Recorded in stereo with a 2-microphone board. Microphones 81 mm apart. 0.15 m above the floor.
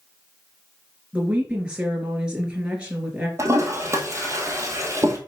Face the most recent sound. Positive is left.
turn(degrees=-35)  # may be behind; listen again after turning